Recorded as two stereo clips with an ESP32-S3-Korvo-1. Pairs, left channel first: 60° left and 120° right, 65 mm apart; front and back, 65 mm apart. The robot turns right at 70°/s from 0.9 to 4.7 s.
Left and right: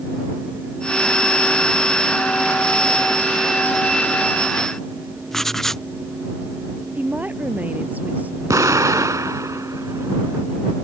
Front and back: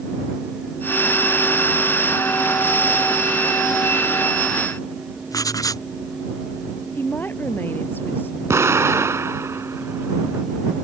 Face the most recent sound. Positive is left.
turn(degrees=-140)